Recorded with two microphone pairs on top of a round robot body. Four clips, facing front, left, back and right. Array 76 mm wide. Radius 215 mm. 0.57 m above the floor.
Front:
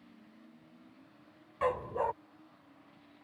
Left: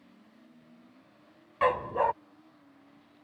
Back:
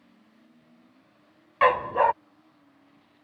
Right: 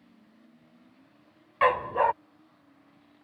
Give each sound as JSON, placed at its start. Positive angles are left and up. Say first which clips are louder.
{"t": 1.6, "sound": "a dog barking", "louder": "right 3 dB, back 11 dB", "azimuth_deg": -150}